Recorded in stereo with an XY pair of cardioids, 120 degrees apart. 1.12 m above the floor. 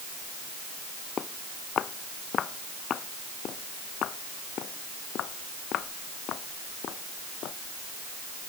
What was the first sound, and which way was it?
Footsteps, 45° left.